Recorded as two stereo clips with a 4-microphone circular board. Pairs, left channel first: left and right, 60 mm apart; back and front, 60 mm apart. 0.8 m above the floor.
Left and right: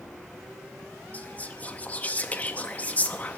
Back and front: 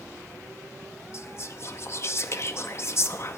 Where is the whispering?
150° left, 0.6 m.